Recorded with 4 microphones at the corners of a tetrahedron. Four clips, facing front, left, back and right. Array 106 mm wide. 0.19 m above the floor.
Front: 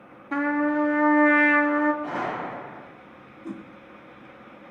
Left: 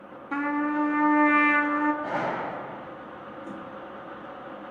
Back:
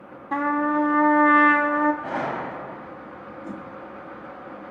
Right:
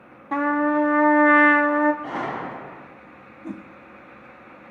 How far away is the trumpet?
About 1.4 m.